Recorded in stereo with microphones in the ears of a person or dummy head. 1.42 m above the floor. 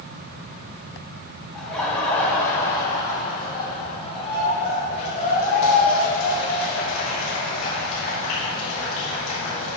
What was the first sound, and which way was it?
Laughter, 5° left (ahead or behind).